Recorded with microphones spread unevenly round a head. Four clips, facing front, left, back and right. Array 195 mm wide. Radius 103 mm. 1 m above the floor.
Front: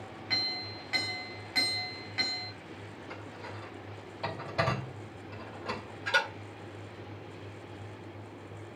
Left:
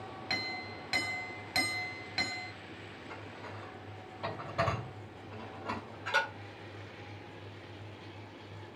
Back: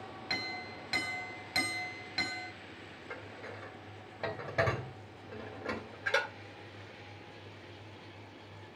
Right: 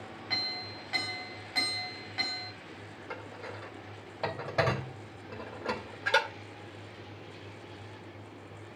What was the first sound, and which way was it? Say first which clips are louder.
A clink: left 1 dB, even; 135° left.